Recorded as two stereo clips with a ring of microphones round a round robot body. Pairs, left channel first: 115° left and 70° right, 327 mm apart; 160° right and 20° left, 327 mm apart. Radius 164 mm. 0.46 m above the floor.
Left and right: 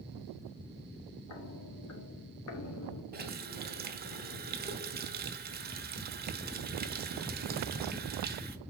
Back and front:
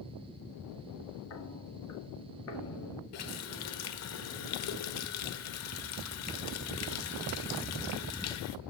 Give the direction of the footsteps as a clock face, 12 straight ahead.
7 o'clock.